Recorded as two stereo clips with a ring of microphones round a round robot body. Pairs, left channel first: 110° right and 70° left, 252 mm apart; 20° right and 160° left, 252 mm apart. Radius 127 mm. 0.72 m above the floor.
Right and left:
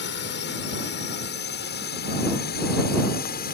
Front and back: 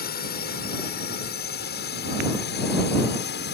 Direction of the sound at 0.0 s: 70° right.